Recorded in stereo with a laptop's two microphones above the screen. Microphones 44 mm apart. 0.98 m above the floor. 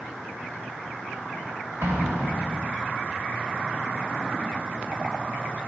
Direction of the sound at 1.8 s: 70° right (ahead or behind).